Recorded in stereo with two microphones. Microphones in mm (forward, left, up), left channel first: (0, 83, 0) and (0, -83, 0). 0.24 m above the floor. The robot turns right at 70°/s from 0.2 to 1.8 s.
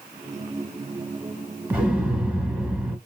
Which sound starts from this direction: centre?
An explosion, at 1.7 s.